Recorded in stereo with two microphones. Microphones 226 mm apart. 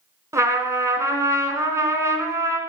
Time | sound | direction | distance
0.3 | a trumpet | 15° right (ahead or behind) | 0.9 m